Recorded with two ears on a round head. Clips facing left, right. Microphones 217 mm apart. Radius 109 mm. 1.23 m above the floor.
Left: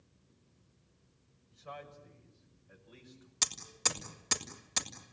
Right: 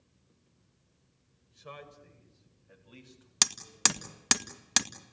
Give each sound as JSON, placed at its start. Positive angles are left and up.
{"t": 1.5, "sound": "a man speaking", "side_deg": -55, "distance_m": 6.5}
{"t": 3.4, "sound": "hammering", "side_deg": -75, "distance_m": 1.8}